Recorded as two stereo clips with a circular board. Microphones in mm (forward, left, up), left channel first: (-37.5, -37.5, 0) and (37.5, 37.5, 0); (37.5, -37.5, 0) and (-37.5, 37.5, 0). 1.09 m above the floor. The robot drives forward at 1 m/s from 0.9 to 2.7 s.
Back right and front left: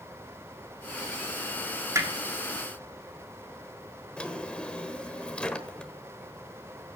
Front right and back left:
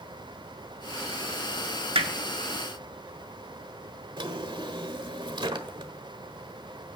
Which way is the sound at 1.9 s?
105° left.